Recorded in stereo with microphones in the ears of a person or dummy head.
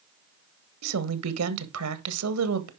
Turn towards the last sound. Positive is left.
turn(degrees=-80)